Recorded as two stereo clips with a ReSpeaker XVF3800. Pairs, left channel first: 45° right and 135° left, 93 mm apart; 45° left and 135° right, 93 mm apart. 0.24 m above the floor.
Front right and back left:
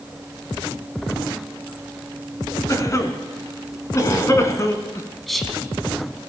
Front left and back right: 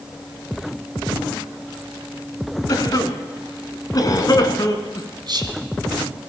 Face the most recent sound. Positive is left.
turn(degrees=-135)